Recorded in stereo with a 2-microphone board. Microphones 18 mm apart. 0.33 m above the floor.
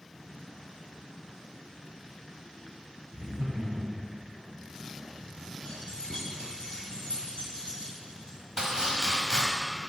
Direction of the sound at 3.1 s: 50° right (ahead or behind).